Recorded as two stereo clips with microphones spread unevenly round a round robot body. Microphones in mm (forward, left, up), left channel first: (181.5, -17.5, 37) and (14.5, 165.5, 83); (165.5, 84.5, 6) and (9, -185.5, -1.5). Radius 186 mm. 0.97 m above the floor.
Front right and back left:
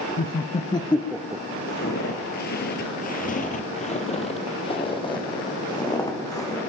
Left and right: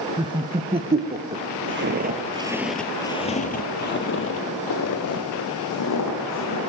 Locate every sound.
0.2 s laughter: 50° right, 0.7 m; by 1.4 s 155° right, 0.6 m
1.7 s footsteps: 105° right, 1.1 m; by 6.6 s 30° left, 3 m